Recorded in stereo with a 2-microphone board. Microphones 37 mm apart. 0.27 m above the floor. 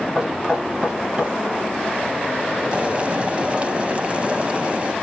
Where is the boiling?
25° right (ahead or behind), 0.8 m.